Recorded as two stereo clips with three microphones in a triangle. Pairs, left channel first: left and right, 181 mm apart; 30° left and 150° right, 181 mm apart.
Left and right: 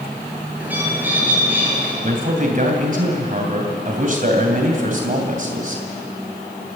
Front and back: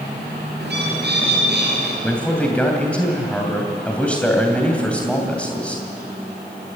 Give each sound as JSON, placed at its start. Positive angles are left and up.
{"t": 0.6, "sound": "a bird", "azimuth_deg": -170, "distance_m": 5.5}
{"t": 2.0, "sound": "a man speaking", "azimuth_deg": -55, "distance_m": 2.5}